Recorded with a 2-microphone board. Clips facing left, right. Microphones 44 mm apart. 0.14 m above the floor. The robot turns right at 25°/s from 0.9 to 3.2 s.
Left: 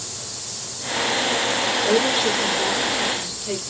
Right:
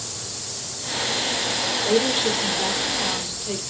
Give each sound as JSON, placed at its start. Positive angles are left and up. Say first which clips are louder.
{"t": 1.8, "sound": "a woman speaking", "louder": "even", "azimuth_deg": 5, "distance_m": 2.5}